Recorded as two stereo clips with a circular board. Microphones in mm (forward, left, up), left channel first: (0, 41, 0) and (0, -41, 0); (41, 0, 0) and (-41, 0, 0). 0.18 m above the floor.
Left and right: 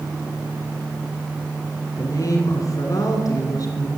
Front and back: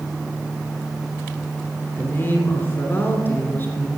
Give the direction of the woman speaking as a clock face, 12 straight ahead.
10 o'clock.